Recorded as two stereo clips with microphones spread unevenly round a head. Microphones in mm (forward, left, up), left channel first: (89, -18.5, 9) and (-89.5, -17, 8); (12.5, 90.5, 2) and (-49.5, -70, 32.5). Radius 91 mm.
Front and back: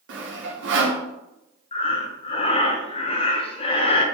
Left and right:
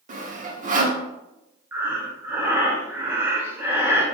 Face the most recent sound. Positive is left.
turn(degrees=-45)